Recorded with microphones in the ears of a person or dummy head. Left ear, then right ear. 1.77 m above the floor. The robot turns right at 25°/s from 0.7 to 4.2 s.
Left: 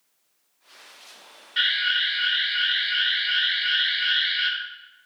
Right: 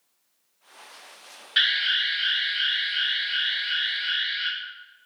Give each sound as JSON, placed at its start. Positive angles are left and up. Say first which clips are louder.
{"t": 1.6, "sound": "an alarm", "louder": "even", "azimuth_deg": -30, "distance_m": 4.0}